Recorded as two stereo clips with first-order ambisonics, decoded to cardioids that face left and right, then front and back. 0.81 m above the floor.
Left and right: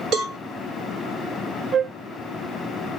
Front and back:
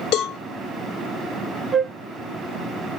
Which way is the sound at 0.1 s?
35° right.